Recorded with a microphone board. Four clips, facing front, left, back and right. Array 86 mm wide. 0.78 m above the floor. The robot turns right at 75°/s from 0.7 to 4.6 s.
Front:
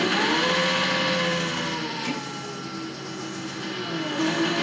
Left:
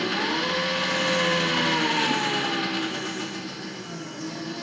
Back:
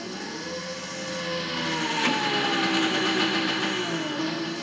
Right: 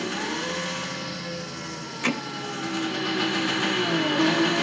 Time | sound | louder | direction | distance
0.0 | an engine running | left 3 dB, front 12 dB | 15° left | 0.9 m
2.0 | hammering | left 2 dB, back 7 dB | 125° right | 2.5 m